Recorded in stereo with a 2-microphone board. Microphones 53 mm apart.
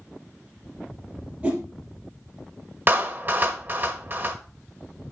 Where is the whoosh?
25° right (ahead or behind), 3.5 m.